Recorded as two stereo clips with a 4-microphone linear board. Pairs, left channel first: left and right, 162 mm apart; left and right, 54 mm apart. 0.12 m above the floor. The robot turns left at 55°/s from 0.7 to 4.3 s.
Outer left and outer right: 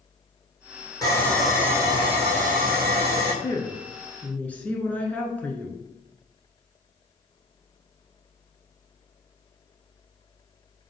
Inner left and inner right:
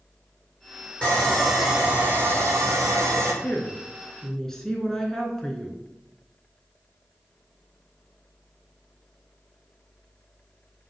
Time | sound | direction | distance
1.0 | sawing | 25° left | 3 m
3.4 | a woman speaking | 25° left (ahead or behind) | 1.1 m